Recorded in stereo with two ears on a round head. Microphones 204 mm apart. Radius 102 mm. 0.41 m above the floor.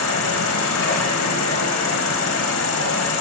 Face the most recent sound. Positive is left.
turn(degrees=60)  # may be behind; listen again after turning